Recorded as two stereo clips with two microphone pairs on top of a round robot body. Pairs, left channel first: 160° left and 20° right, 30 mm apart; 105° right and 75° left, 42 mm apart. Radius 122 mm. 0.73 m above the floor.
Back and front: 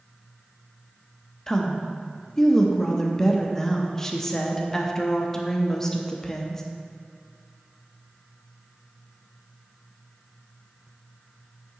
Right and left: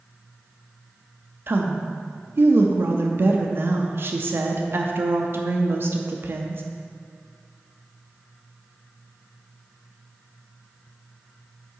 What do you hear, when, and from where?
1.5 s a woman speaking: 95° left, 0.6 m